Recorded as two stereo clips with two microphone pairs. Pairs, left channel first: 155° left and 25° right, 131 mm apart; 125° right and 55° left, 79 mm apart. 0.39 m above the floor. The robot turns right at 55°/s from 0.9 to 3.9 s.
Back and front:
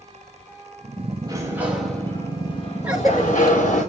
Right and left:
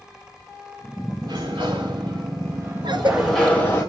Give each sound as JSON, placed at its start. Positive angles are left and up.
{"t": 1.2, "sound": "a sliding door", "azimuth_deg": 30, "distance_m": 7.5}
{"t": 2.8, "sound": "a cough", "azimuth_deg": 55, "distance_m": 7.0}